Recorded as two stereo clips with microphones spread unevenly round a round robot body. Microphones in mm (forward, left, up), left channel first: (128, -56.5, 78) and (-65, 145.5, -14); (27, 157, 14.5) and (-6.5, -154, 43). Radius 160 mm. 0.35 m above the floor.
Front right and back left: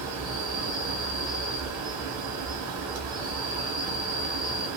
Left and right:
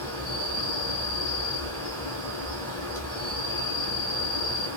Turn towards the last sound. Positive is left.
turn(degrees=170)